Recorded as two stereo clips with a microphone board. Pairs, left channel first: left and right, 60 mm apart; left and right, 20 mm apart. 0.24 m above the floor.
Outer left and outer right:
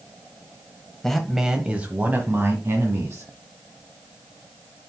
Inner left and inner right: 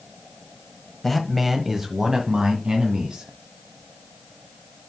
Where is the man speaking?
5° left (ahead or behind), 1.1 m; by 3.3 s 45° right (ahead or behind), 2.5 m.